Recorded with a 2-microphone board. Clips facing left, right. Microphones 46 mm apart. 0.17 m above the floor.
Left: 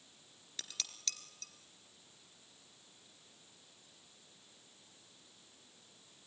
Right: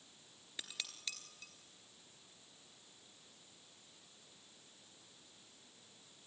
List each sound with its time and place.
0.6 s dishes clattering: 15° right (ahead or behind), 1.8 m